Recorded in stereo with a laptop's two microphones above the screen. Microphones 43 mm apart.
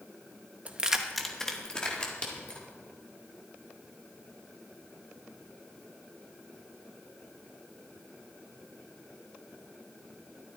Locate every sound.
0.7 s keys jangling: 30° right (ahead or behind), 0.7 m; by 2.7 s 30° left (ahead or behind), 2.5 m